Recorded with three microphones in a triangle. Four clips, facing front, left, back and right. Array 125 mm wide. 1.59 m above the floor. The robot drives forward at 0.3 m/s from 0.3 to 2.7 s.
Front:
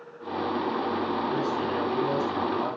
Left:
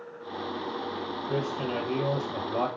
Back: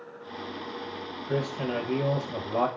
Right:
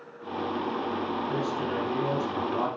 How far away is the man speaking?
About 7 m.